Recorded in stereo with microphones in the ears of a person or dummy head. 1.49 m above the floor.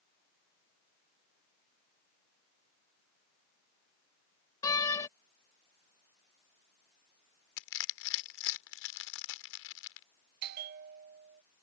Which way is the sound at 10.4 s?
55° right (ahead or behind).